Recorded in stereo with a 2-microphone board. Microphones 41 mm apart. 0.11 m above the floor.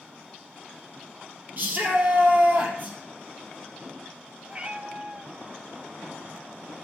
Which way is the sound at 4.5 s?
25° right (ahead or behind).